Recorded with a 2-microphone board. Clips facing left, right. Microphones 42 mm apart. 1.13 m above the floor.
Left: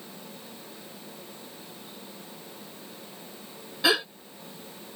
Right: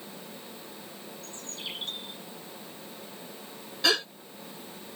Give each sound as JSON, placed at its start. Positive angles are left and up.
{"t": 1.2, "sound": "a bird", "side_deg": -85}
{"t": 3.8, "sound": "a gasp", "side_deg": 10}